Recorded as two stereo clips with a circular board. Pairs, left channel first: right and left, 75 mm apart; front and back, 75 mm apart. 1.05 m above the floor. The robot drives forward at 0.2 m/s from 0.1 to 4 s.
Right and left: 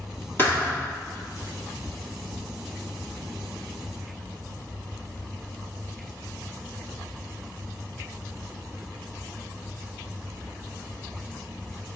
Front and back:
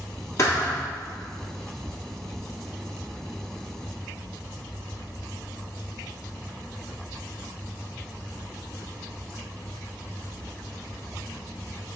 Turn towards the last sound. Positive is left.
turn(degrees=-65)